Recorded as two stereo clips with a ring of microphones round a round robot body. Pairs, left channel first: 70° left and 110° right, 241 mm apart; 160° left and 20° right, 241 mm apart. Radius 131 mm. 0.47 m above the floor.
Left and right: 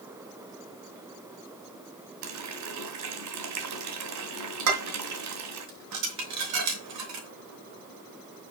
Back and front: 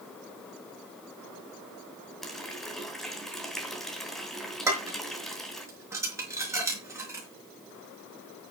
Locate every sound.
2.2 s a running tap: 115° right, 2.5 m
4.7 s dishes clattering: 100° right, 4.5 m